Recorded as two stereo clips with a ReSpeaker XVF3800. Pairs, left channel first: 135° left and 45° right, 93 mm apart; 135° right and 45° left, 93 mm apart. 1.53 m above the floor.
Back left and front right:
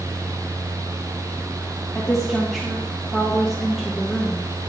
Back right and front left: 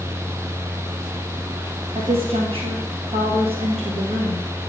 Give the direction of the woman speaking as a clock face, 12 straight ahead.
11 o'clock.